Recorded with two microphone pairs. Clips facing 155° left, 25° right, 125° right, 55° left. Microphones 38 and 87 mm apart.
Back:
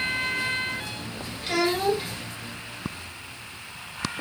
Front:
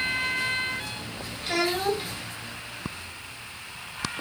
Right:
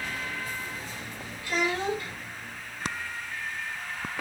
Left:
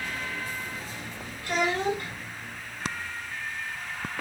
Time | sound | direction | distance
1.4 | a child speaking | 65° left | 1.6 m